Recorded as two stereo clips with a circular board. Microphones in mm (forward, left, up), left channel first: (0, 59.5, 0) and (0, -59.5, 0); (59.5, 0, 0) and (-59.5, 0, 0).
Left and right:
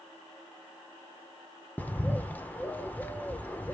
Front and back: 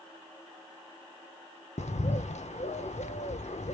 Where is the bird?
15° left, 0.7 m.